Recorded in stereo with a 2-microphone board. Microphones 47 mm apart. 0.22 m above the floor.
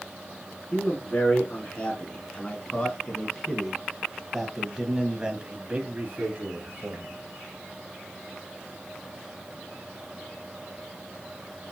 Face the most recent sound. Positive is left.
turn(degrees=-40)  # may be behind; listen again after turning